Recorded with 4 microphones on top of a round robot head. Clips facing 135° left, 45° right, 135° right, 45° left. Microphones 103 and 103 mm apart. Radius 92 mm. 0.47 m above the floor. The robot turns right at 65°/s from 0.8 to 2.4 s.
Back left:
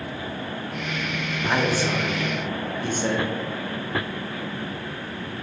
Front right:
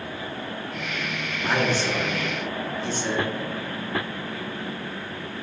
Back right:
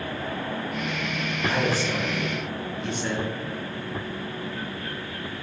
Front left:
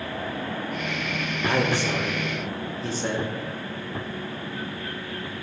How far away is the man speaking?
About 1.6 m.